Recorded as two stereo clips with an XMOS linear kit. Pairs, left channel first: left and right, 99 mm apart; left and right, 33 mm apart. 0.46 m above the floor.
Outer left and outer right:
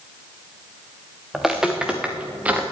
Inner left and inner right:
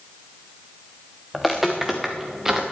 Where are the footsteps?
Centre (ahead or behind), 2.0 m; by 2.6 s 15° right (ahead or behind), 2.5 m.